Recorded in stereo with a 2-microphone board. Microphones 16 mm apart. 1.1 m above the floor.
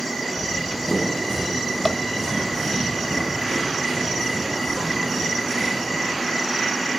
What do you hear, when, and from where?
0.3 s running footsteps: 65° left (ahead or behind), 3 m; by 5.9 s 35° left (ahead or behind), 5 m